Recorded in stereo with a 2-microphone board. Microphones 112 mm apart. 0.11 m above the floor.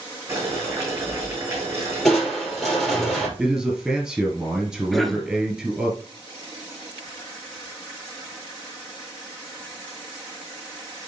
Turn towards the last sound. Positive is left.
turn(degrees=0)  # may be behind; listen again after turning